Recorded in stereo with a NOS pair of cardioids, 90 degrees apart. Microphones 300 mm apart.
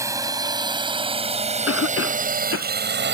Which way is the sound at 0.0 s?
10° right.